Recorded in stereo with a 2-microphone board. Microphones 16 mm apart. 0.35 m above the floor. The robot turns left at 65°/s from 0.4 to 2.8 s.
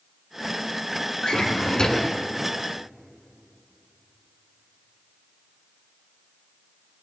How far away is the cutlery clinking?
I don't hear cutlery clinking.